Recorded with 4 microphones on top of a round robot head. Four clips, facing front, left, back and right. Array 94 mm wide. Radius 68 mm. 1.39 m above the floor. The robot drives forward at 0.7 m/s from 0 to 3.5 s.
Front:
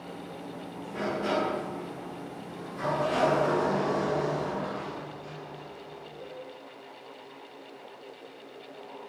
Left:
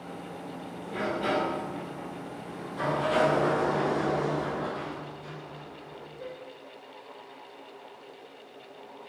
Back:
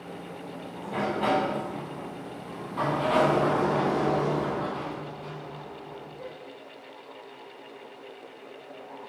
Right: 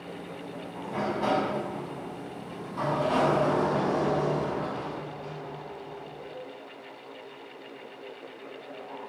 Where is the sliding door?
145° right, 7 m; by 6.3 s 150° right, 8.5 m.